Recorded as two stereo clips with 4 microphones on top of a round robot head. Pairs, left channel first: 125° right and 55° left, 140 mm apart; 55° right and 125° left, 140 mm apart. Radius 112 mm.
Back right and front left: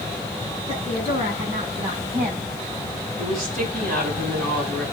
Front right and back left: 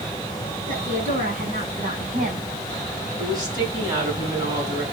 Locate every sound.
0.7 s a woman speaking: 100° left, 7 m; by 2.5 s 95° left, 5 m
3.2 s a woman speaking: 65° left, 4.5 m